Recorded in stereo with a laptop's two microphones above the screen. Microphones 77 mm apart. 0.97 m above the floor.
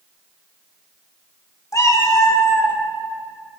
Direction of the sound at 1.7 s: 45° left (ahead or behind).